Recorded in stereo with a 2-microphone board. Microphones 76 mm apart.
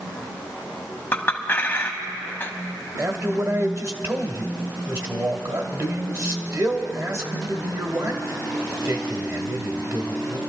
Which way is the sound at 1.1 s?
25° left (ahead or behind).